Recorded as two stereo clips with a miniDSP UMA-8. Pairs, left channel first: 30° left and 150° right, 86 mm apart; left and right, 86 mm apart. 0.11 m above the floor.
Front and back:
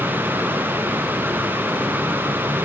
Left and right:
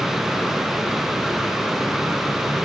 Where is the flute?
No flute in this recording.